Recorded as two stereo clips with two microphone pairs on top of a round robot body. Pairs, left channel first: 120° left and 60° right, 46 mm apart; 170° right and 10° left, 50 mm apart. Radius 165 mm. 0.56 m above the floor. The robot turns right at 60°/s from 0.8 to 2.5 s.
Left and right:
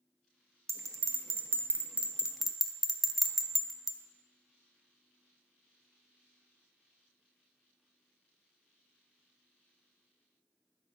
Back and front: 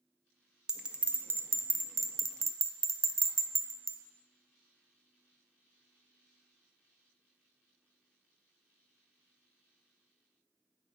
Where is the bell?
65° right, 0.6 m; by 4.0 s 35° left, 0.6 m.